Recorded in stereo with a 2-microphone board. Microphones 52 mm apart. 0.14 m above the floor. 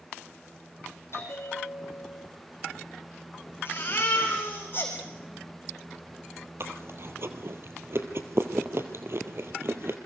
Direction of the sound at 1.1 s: 55° left (ahead or behind).